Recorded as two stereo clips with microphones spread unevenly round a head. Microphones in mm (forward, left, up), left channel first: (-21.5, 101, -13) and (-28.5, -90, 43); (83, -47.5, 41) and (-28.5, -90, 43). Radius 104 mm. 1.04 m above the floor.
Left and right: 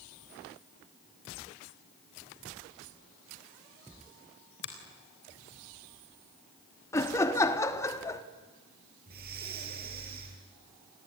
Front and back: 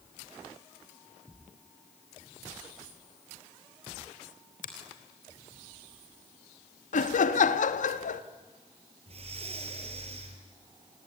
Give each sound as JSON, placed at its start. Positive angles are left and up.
{"t": 4.6, "sound": "a finger snap", "azimuth_deg": 50, "distance_m": 3.5}
{"t": 6.9, "sound": "laughter", "azimuth_deg": 10, "distance_m": 1.4}
{"t": 9.1, "sound": "breathing", "azimuth_deg": -125, "distance_m": 4.0}